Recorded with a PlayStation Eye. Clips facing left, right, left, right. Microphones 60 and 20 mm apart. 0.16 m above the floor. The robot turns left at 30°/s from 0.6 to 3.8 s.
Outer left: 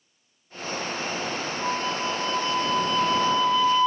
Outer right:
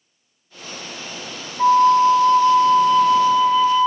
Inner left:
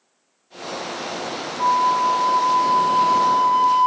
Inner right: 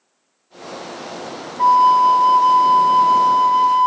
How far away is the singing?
I don't hear singing.